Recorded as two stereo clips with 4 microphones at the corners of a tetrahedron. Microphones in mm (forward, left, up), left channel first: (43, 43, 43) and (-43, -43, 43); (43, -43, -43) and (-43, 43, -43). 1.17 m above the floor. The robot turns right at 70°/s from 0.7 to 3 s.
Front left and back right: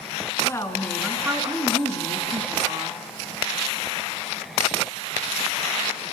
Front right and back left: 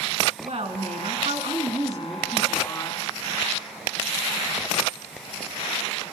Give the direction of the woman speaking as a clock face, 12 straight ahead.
8 o'clock.